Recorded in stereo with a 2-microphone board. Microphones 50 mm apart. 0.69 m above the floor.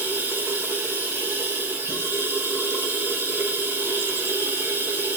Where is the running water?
45° right (ahead or behind), 9 m.